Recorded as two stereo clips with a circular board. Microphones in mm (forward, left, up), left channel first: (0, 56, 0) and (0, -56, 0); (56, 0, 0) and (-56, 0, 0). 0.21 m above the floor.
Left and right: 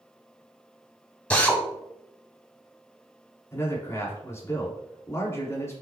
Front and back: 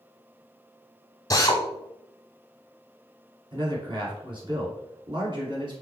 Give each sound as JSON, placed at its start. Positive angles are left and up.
{"t": 1.3, "sound": "a drill", "azimuth_deg": 20, "distance_m": 0.7}
{"t": 3.5, "sound": "a man speaking", "azimuth_deg": 150, "distance_m": 1.5}